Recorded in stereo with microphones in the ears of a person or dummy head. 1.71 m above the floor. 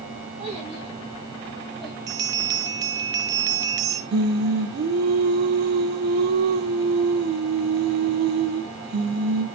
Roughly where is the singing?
Right.